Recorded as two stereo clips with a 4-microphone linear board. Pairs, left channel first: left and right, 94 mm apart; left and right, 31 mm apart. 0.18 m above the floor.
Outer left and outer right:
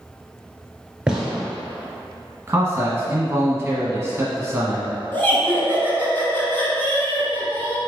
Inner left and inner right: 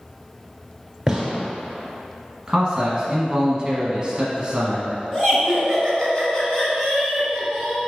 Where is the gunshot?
10° right (ahead or behind), 1.0 m.